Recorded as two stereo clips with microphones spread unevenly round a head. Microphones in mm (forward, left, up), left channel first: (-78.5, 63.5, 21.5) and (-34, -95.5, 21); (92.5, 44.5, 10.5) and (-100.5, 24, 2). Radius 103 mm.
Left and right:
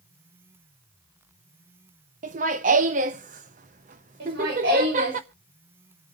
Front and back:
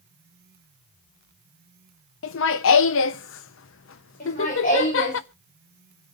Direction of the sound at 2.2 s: 25° right.